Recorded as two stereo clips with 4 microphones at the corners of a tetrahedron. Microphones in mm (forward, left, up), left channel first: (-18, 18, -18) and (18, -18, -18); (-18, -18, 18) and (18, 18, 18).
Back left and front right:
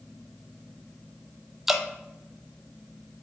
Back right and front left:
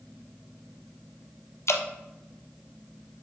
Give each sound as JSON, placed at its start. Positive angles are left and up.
{"t": 1.7, "sound": "dripping", "azimuth_deg": -125, "distance_m": 1.0}